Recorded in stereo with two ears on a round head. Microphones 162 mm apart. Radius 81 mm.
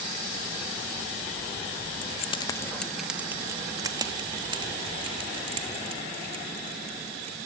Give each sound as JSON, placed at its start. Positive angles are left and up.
{"t": 2.0, "sound": "keys jangling", "side_deg": 45, "distance_m": 0.8}